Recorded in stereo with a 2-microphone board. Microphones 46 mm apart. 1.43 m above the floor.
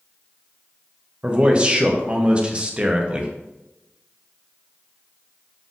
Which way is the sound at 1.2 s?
25° right (ahead or behind).